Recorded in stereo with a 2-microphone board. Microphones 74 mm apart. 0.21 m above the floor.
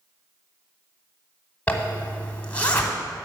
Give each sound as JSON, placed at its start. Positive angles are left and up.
{"t": 1.7, "sound": "a zipper", "side_deg": 20, "distance_m": 1.0}